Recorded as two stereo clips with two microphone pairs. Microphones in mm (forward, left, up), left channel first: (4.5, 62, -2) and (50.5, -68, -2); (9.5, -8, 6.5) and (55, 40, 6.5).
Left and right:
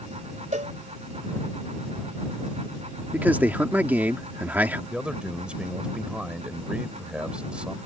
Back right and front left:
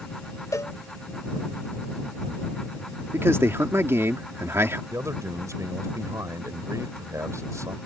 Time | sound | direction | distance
0.5 | a cowbell | 100° right | ?
3.1 | a man speaking | 5° left | ?
4.9 | a man speaking | 10° left | ?